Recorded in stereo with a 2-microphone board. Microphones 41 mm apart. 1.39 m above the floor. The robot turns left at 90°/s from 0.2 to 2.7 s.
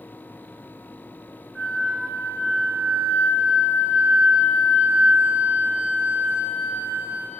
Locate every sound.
1.6 s a flute: 10° left, 1.8 m; by 7.3 s 95° right, 1.8 m